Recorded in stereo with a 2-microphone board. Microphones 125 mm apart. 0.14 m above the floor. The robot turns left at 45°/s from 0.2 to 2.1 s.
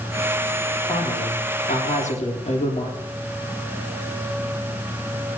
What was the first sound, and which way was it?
A woman speaking, 125° left.